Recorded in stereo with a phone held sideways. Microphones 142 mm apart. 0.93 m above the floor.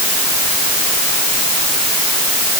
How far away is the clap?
I don't hear a clap.